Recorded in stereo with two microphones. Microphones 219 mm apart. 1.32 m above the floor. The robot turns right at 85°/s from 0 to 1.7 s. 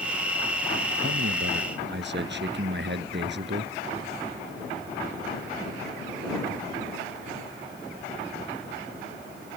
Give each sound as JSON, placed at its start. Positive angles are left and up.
{"t": 1.0, "sound": "a man speaking", "azimuth_deg": -115}